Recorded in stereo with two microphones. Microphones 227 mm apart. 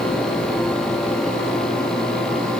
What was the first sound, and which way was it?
Only background noise.